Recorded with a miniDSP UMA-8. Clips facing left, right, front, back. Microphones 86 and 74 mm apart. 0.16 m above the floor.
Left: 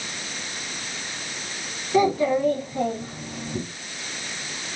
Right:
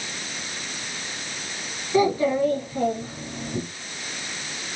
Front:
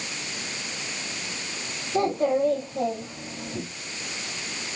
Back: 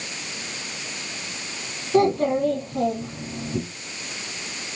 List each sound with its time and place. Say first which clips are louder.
1.9 s a child speaking: even, back 4 dB; 170° left, 1.1 m